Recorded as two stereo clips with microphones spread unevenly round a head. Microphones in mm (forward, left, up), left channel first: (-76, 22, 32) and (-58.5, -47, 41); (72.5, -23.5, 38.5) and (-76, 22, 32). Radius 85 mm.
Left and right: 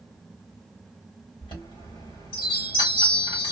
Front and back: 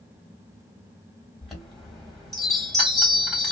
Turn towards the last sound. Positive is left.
turn(degrees=70)